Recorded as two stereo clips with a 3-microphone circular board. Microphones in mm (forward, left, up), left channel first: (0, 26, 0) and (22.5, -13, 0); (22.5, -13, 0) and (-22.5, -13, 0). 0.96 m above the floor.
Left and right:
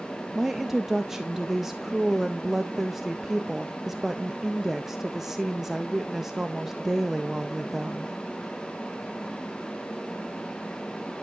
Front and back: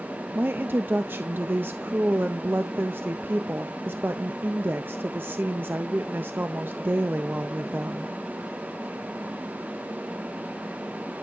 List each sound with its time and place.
0.3 s a woman speaking: 145° right, 0.5 m